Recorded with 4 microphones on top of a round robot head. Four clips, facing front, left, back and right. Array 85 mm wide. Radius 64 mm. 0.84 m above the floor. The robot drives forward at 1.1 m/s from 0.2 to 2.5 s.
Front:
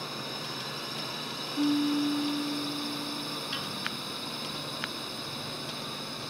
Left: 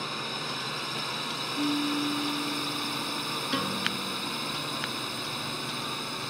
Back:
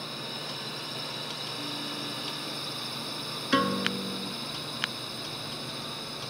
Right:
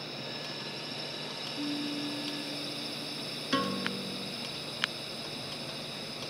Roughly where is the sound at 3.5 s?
Behind.